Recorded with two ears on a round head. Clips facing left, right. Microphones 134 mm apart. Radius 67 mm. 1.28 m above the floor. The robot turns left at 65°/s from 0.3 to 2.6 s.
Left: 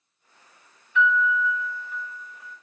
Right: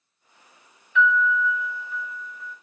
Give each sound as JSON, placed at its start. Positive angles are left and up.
{"t": 0.9, "sound": "a piano", "azimuth_deg": -115, "distance_m": 1.3}